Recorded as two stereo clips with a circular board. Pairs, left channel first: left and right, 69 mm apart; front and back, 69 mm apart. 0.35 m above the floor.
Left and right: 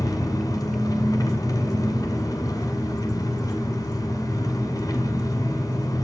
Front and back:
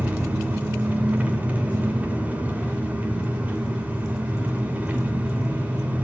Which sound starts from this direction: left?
An engine running, at 0.0 s.